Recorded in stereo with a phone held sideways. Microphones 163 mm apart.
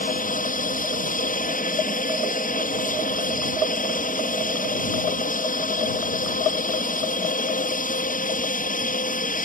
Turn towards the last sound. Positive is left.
turn(degrees=55)  # may be behind; listen again after turning